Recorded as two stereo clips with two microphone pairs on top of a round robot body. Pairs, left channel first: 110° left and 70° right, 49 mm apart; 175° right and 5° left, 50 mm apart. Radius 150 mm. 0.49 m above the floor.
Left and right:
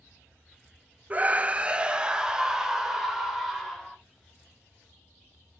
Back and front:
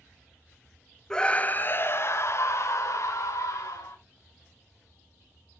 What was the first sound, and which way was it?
A scream, 90° right.